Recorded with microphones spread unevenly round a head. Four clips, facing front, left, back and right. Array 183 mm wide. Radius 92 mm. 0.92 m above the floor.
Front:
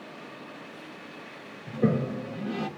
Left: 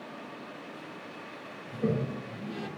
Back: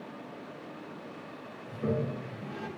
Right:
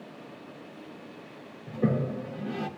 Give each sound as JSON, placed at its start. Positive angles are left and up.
{"t": 1.7, "sound": "a toilet flushing", "azimuth_deg": -25, "distance_m": 1.5}